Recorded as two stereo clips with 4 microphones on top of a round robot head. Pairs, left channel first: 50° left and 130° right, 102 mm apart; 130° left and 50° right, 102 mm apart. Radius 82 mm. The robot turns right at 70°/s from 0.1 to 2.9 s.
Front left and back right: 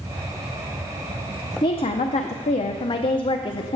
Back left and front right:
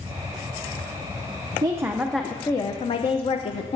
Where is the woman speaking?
5° left, 0.6 m; by 3.8 s 95° left, 0.6 m.